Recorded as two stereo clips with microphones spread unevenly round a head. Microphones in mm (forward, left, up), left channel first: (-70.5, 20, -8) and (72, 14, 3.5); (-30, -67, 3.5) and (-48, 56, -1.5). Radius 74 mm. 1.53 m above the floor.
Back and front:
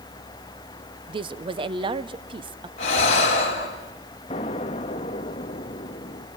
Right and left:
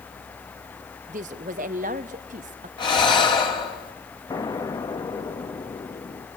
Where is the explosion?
135° right, 1.1 m.